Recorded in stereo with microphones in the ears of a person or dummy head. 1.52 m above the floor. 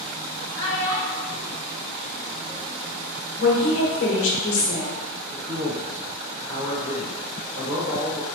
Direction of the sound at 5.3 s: 85° right.